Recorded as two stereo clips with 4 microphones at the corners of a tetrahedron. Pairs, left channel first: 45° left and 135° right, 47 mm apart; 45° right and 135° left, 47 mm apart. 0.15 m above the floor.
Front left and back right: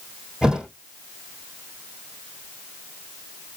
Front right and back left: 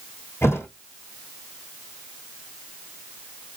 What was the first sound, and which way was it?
A thud, 55° right.